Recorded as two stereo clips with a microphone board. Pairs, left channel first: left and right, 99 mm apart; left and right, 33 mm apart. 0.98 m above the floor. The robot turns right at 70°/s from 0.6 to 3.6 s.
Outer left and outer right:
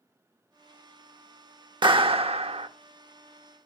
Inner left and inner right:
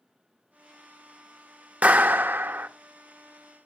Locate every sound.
1.8 s a clap: 130° right, 0.7 m; by 2.7 s 70° right, 0.7 m